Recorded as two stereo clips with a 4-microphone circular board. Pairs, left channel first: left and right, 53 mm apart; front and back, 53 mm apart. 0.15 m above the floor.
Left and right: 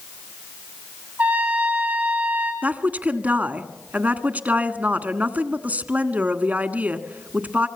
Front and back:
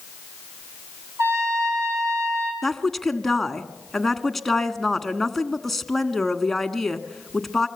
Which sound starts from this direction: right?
A woman speaking, at 2.6 s.